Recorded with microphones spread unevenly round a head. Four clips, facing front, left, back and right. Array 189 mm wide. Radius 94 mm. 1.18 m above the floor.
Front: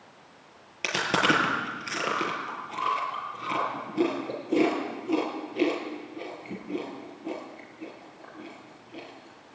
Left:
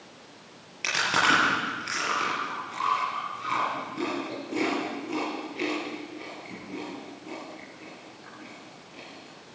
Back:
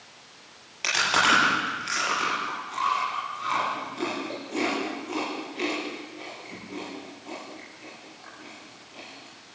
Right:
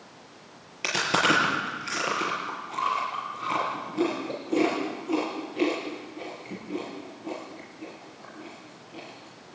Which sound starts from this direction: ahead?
Chewing, at 0.8 s.